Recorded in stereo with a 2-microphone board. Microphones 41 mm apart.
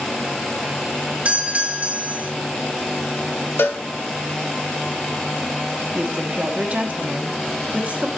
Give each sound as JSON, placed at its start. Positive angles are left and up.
{"t": 1.2, "sound": "a doorbell", "side_deg": -35, "distance_m": 3.0}
{"t": 3.6, "sound": "a cowbell", "side_deg": 70, "distance_m": 1.0}
{"t": 6.0, "sound": "a woman speaking", "side_deg": -35, "distance_m": 1.2}